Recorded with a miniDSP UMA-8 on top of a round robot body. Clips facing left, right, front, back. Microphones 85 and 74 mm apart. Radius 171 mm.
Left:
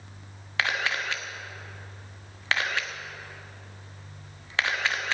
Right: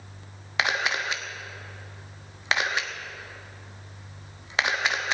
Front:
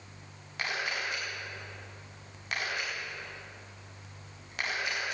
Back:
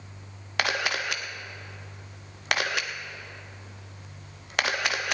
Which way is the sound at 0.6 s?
165° right.